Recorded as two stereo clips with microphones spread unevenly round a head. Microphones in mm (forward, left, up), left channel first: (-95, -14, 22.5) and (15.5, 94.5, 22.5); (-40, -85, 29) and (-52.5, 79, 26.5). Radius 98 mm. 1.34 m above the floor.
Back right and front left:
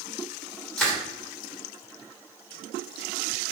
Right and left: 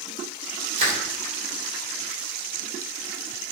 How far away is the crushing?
About 1.9 m.